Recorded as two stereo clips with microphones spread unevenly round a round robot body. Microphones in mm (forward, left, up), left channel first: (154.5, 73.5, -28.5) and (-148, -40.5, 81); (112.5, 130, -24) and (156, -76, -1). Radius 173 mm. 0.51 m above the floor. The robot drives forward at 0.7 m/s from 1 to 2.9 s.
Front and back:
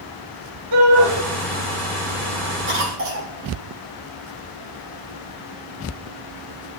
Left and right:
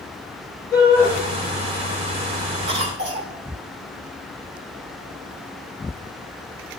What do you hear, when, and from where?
0.7 s a shout: 175° right, 7 m
2.7 s a cough: 95° right, 1.5 m; by 3.3 s 105° right, 1.6 m